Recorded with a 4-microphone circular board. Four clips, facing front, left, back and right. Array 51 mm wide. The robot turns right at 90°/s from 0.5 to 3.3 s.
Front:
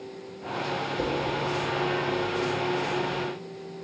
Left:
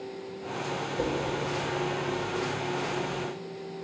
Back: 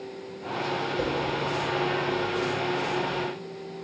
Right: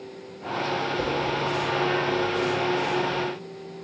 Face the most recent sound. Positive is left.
turn(degrees=45)